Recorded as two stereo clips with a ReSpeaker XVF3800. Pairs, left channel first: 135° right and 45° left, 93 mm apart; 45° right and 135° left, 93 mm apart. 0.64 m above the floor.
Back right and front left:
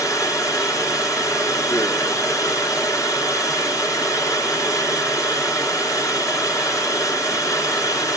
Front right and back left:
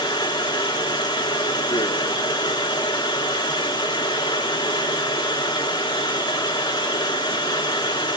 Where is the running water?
80° right, 1.8 m.